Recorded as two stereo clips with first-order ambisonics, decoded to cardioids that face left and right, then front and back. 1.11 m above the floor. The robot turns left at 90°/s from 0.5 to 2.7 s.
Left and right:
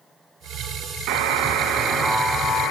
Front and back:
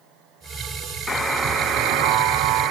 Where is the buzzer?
80° right, 3.5 m; by 2.7 s 135° left, 3.5 m.